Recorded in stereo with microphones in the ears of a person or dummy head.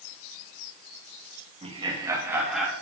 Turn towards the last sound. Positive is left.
turn(degrees=0)  # may be behind; listen again after turning